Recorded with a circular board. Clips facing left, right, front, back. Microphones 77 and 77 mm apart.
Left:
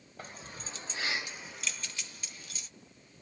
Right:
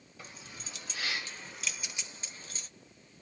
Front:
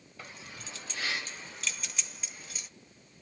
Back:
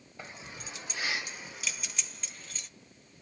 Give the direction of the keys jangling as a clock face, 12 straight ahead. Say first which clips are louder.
Left 4 dB, back 2 dB; 8 o'clock.